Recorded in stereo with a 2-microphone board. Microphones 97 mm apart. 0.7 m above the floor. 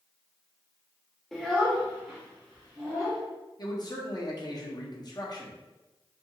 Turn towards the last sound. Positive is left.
turn(degrees=45)  # may be behind; listen again after turning